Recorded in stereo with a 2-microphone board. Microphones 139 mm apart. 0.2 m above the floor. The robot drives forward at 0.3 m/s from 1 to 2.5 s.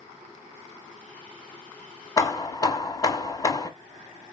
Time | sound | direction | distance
2.2 | hammering | 25° left (ahead or behind) | 0.6 m